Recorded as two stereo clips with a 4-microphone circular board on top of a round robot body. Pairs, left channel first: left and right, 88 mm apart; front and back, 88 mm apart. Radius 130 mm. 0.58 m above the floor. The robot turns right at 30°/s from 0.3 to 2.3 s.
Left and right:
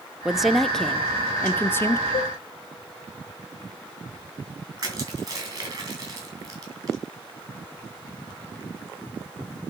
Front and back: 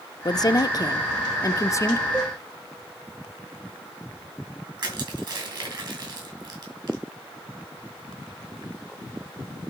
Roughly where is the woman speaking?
Ahead.